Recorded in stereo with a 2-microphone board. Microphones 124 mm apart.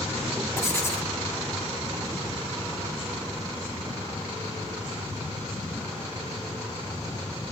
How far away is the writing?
About 2.5 m.